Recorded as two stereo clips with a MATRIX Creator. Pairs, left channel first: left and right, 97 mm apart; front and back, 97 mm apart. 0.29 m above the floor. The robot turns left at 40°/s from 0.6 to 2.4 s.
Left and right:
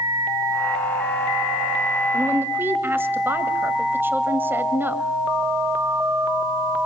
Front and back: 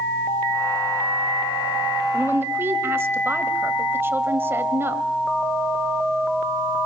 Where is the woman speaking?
125° right, 1.5 m; by 5.0 s 135° right, 1.5 m.